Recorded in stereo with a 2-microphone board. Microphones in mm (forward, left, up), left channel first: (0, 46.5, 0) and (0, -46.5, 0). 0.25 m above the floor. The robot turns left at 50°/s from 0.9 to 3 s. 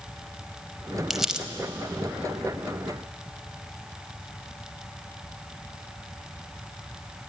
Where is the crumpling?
Centre (ahead or behind), 0.6 m; by 1.5 s 10° right (ahead or behind), 0.6 m.